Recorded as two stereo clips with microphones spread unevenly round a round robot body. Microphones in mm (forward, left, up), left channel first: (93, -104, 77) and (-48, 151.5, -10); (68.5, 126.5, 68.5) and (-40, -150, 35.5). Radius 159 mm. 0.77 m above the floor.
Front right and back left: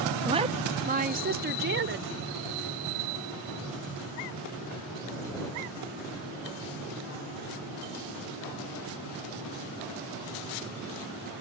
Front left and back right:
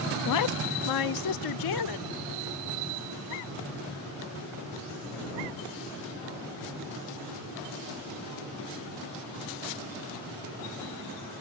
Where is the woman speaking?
60° left; by 2.1 s 70° left.